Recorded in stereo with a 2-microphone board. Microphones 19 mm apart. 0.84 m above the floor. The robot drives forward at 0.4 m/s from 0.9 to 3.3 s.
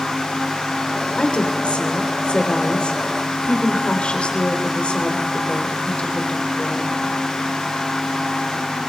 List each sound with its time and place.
1.2 s a woman speaking: 75° left (ahead or behind), 3.5 m